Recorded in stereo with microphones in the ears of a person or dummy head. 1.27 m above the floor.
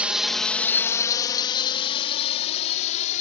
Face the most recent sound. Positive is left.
turn(degrees=40)  # may be behind; listen again after turning